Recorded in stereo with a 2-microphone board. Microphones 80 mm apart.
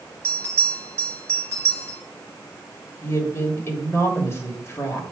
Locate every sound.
0.2 s a bell: 30° right (ahead or behind), 3 m
3.0 s a woman speaking: 30° left (ahead or behind), 1.5 m